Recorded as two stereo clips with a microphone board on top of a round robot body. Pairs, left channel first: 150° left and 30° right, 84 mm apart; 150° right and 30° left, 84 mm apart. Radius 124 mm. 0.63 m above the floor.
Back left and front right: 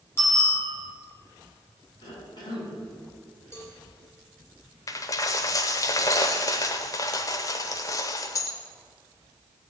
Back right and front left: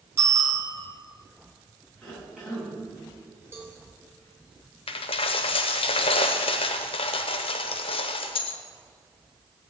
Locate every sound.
0.2 s a bicycle bell: 90° left, 4.5 m
2.0 s a cough: 110° left, 6.5 m
3.5 s a cowbell: 90° left, 3.5 m
4.9 s a dropped coin: 155° right, 0.6 m